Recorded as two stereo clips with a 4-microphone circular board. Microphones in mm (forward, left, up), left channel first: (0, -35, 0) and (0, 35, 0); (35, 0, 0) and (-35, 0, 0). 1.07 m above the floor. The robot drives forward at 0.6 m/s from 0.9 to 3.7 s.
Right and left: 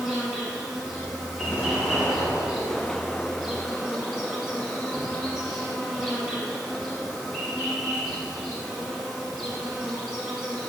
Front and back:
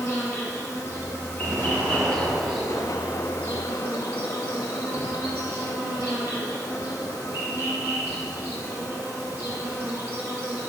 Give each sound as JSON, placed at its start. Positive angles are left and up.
{"t": 0.0, "sound": "an insect", "azimuth_deg": 5, "distance_m": 1.3}
{"t": 1.4, "sound": "an explosion", "azimuth_deg": -150, "distance_m": 0.9}